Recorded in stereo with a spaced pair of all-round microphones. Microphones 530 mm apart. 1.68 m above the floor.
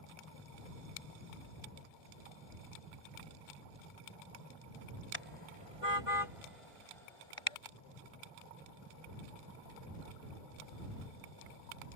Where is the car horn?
65° left (ahead or behind); by 7.6 s 70° left (ahead or behind).